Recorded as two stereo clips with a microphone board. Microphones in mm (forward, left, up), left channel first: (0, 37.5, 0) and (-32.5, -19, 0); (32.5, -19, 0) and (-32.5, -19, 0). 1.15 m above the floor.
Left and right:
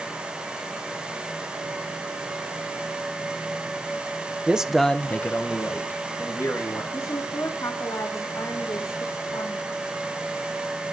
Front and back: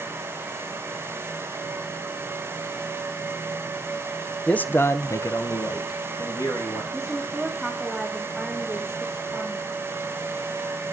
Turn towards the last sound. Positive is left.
turn(degrees=95)